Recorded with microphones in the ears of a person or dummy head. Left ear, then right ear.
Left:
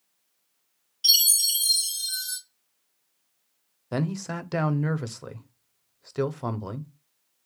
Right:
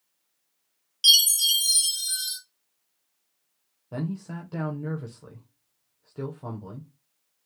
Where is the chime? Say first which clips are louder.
Right 3 dB; 55° right (ahead or behind), 2 m.